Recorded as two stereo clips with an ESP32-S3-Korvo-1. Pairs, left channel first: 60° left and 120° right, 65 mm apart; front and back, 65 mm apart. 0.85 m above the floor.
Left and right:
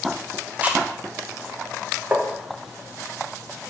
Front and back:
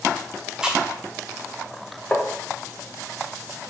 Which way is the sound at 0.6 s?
120° right.